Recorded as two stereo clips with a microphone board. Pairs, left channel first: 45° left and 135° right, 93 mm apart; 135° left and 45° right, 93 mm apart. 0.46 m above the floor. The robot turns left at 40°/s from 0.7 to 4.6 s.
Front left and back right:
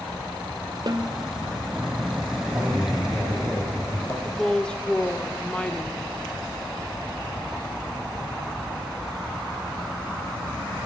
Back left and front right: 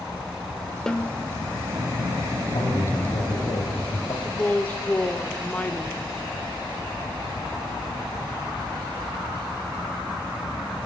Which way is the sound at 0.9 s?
145° right.